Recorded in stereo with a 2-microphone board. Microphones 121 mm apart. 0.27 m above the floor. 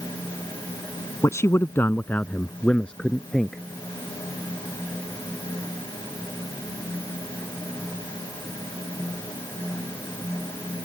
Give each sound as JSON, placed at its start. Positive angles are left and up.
{"t": 1.2, "sound": "a man speaking", "side_deg": 25}